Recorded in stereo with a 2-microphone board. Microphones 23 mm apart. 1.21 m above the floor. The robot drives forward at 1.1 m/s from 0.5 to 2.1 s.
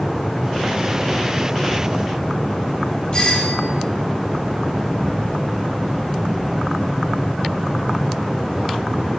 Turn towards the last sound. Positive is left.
turn(degrees=45)  # may be behind; listen again after turning